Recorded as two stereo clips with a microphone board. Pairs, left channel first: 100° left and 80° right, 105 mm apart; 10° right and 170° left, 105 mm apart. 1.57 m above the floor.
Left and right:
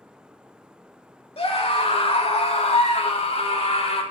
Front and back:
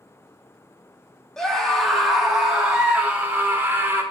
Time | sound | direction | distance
1.4 | a scream | 75° left | 3 m